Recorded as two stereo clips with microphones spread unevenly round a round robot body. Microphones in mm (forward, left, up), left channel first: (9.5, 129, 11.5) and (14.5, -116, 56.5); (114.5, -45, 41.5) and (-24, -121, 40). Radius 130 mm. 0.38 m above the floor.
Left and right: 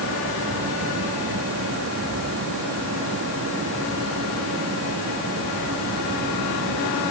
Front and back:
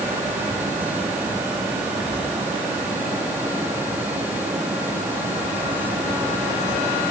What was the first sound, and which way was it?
Only background noise.